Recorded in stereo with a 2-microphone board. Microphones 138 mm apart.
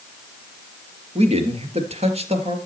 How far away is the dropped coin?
No dropped coin in this recording.